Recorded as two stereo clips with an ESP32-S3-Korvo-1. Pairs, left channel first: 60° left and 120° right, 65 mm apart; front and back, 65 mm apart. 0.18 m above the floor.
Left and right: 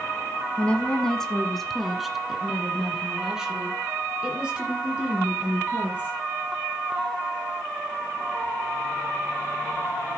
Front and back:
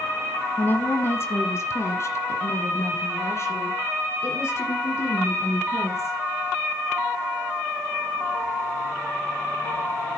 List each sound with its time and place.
0.6 s a woman speaking: 10° left, 1.3 m; by 6.2 s 45° right, 5 m